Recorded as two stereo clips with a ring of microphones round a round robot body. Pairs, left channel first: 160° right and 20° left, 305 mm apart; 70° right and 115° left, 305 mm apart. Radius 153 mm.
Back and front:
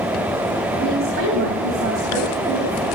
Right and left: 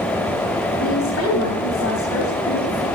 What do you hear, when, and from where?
0.8 s a woman speaking: 25° right, 3.5 m